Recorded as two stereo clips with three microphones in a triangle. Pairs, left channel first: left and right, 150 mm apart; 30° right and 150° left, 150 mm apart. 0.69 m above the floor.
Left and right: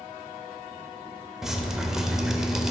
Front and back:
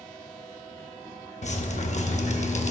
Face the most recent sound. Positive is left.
turn(degrees=-5)